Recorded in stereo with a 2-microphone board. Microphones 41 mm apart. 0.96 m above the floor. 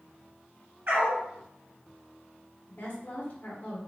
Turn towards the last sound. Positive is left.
turn(degrees=40)  # may be behind; listen again after turning